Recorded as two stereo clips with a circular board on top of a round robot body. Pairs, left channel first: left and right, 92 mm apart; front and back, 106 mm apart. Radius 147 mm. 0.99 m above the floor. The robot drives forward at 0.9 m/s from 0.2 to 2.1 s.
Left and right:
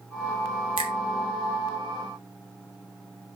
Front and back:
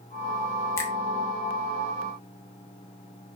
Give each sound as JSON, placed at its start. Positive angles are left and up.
{"t": 0.8, "sound": "a finger snap", "azimuth_deg": -65, "distance_m": 2.0}